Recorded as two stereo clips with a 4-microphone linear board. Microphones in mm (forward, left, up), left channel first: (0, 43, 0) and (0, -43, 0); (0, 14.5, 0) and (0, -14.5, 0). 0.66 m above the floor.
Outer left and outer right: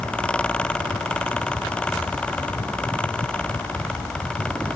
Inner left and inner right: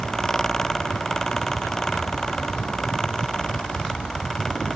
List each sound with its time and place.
Only background noise.